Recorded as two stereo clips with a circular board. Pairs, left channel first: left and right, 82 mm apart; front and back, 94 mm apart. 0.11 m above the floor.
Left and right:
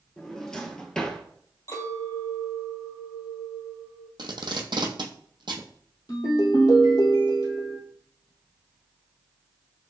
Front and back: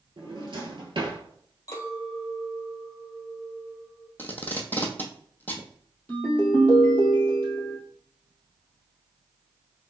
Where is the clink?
55° left, 1.8 m.